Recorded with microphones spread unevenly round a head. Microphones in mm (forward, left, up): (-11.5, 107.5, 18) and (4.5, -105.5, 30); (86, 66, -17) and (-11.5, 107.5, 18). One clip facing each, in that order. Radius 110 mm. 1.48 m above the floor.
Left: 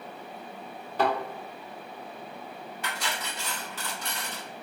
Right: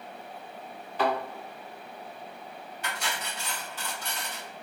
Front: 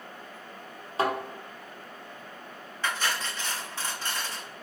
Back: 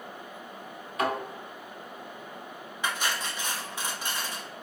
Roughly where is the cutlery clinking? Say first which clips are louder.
Even, even; left.